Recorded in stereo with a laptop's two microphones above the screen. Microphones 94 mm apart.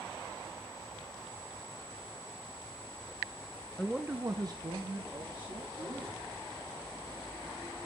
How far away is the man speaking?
About 0.6 m.